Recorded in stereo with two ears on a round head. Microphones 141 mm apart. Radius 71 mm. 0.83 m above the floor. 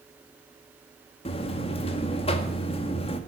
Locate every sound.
1.2 s a buzzer: 40° left (ahead or behind), 1.6 m